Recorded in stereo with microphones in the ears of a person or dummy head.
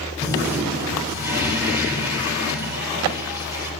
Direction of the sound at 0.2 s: 10° right (ahead or behind).